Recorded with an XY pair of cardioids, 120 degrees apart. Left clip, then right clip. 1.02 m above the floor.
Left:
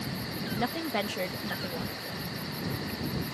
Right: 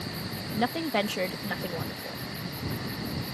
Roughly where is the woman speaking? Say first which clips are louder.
Right 4 dB; ahead.